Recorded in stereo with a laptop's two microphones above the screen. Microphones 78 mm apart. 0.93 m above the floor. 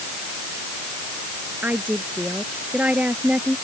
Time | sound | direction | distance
1.6 | a woman speaking | 20° right (ahead or behind) | ?